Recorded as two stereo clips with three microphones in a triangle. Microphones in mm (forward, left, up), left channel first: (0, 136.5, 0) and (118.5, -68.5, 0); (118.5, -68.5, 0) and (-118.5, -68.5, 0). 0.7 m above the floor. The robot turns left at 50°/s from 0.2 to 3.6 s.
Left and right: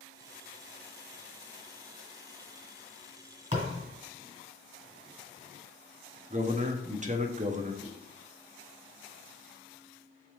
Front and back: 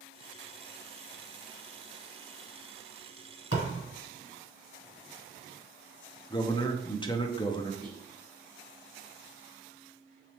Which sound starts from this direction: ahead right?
A man speaking, at 6.3 s.